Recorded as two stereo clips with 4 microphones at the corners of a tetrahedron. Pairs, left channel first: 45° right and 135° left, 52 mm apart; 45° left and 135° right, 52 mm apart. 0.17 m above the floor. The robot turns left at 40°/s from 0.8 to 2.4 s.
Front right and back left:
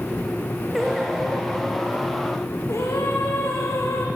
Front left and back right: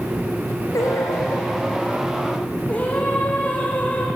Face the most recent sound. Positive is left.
turn(degrees=-15)